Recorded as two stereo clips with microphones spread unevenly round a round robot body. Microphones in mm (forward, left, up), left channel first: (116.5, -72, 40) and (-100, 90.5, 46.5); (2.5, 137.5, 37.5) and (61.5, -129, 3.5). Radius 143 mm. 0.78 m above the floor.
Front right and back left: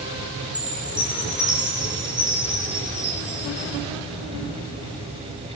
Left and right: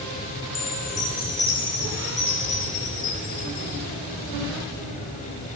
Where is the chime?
70° left, 10 m.